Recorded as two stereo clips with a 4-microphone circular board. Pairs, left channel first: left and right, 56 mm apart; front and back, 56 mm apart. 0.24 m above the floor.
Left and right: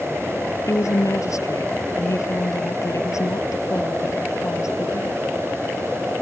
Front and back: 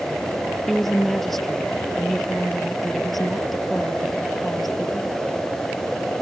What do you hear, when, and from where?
0.7 s a woman speaking: 85° left